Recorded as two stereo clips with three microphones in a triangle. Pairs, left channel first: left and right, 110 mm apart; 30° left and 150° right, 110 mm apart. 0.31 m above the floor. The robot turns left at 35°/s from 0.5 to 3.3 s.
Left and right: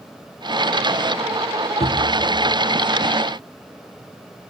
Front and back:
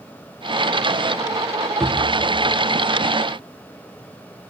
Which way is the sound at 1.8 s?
115° left.